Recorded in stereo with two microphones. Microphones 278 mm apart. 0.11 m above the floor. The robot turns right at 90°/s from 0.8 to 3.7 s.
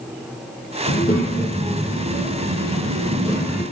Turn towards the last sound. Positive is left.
turn(degrees=15)